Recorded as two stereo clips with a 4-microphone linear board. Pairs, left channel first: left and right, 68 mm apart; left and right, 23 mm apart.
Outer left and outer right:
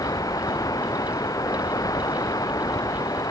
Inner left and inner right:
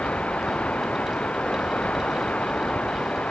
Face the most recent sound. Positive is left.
turn(degrees=65)  # may be behind; listen again after turning